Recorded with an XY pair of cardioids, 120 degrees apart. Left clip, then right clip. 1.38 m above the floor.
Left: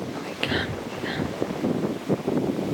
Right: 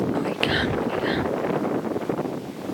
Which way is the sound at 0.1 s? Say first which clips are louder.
Right 1 dB; 25° right.